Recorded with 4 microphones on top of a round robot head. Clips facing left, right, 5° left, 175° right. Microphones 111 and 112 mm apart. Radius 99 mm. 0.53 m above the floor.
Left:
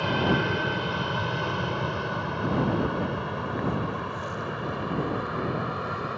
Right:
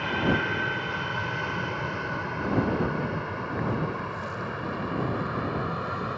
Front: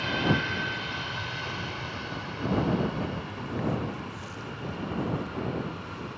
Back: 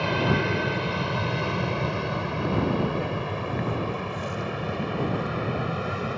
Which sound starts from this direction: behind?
An aircraft, at 0.0 s.